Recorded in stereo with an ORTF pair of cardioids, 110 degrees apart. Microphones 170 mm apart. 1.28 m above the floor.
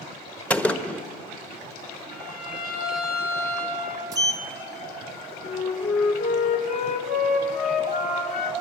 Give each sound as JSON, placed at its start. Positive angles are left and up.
{"t": 0.5, "sound": "a gunshot", "azimuth_deg": 10, "distance_m": 1.3}
{"t": 2.1, "sound": "a violin", "azimuth_deg": 60, "distance_m": 7.0}
{"t": 4.1, "sound": "a sliding door", "azimuth_deg": -20, "distance_m": 0.9}
{"t": 5.4, "sound": "a flute", "azimuth_deg": 50, "distance_m": 4.0}